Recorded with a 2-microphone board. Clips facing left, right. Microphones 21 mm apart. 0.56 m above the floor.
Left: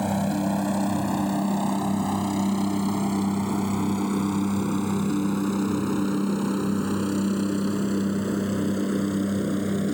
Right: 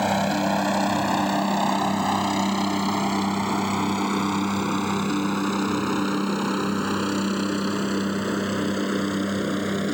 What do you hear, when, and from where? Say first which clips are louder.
0.0 s a helicopter: right 3 dB; 40° right (ahead or behind); by 9.9 s 30° right (ahead or behind)